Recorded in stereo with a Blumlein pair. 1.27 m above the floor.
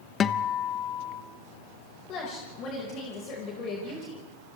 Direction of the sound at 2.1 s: 35° left.